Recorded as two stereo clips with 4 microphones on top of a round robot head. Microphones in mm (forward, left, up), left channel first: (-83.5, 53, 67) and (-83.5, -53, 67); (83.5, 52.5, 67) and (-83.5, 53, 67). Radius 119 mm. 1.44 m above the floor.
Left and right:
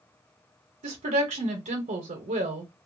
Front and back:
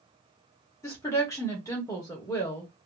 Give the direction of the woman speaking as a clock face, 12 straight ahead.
3 o'clock.